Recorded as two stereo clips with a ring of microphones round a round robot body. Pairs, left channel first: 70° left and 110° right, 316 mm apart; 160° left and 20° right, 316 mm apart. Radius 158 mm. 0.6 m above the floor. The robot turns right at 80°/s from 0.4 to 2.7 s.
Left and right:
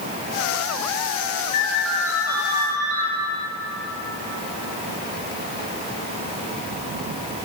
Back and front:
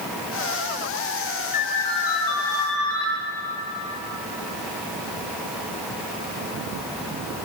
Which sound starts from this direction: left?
A ringtone, at 1.5 s.